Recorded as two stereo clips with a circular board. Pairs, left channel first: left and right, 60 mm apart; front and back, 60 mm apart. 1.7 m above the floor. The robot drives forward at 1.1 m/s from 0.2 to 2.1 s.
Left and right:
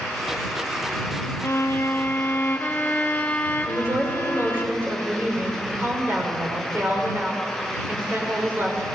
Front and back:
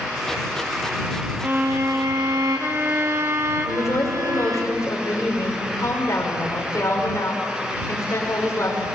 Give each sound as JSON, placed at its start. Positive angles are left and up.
{"t": 1.4, "sound": "a violin", "azimuth_deg": 125, "distance_m": 1.0}
{"t": 3.6, "sound": "a woman speaking", "azimuth_deg": -35, "distance_m": 5.5}